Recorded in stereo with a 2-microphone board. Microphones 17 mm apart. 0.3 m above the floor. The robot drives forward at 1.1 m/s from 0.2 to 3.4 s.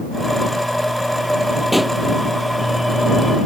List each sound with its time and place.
1.7 s a pop: centre (ahead or behind)